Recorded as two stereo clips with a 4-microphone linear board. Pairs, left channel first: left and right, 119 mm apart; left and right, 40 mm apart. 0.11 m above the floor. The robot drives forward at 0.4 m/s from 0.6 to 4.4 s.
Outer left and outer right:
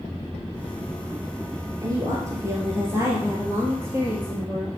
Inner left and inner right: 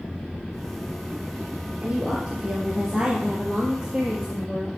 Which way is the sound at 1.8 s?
30° right (ahead or behind).